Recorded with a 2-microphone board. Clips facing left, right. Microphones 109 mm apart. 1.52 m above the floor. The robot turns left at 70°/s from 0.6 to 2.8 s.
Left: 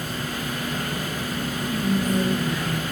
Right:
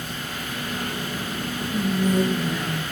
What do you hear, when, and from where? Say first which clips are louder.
1.7 s whispering: right 1 dB; 80° right, 0.9 m; by 2.8 s 160° right, 0.9 m